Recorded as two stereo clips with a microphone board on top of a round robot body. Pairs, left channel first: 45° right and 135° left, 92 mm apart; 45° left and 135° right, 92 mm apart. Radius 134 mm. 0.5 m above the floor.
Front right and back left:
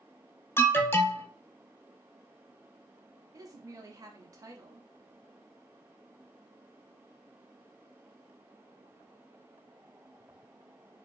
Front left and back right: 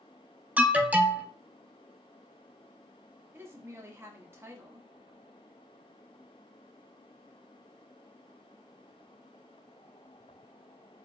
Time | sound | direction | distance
0.6 | an alarm | 80° right | 1.0 m
3.3 | a woman speaking | 170° left | 1.3 m